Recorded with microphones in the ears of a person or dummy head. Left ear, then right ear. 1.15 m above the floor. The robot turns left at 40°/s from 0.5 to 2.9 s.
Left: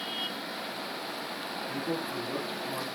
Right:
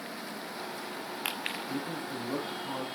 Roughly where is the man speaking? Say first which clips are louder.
Left 3 dB; ahead.